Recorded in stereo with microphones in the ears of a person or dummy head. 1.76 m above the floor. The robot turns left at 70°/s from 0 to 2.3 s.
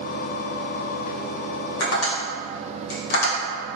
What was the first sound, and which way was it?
Tapping, 80° left.